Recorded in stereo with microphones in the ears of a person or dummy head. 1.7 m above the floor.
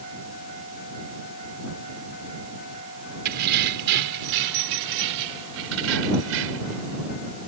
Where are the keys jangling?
55° right (ahead or behind); by 6.8 s 80° right.